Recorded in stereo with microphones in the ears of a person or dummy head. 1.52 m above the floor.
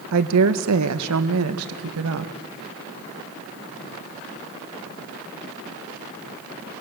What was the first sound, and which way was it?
A woman speaking, 70° right (ahead or behind).